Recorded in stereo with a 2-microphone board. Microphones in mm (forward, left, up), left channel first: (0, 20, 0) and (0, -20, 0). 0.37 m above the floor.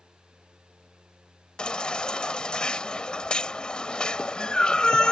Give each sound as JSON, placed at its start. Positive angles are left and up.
{"t": 1.6, "sound": "a baby crying", "side_deg": 20}